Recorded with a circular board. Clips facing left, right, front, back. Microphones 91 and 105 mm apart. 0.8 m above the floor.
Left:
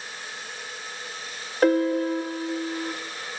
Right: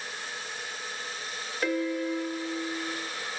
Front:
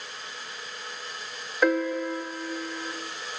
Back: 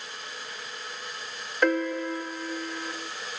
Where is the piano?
80° left, 0.6 m.